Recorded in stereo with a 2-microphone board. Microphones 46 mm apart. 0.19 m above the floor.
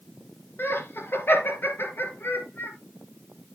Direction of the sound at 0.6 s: 55° left (ahead or behind).